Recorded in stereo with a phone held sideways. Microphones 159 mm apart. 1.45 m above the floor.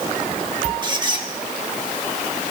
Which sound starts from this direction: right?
A squeak, at 0.8 s.